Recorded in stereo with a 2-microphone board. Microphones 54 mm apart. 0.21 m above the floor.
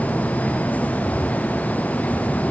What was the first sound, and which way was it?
Only background noise.